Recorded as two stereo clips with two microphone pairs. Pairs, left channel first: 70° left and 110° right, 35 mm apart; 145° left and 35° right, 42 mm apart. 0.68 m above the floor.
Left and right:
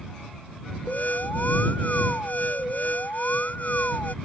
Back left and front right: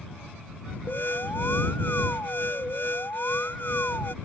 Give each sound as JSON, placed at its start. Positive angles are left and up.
{"t": 0.9, "sound": "an alarm", "azimuth_deg": 105}